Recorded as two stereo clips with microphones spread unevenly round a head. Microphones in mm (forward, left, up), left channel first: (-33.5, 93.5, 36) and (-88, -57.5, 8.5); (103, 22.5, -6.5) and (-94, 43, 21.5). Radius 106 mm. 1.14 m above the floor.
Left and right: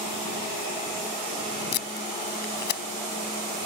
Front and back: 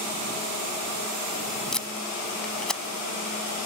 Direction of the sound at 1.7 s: 80° left.